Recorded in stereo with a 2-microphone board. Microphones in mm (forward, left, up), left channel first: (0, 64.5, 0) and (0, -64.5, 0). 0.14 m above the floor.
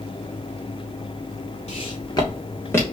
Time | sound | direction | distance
1.7 | footsteps | 50° left (ahead or behind) | 1.3 m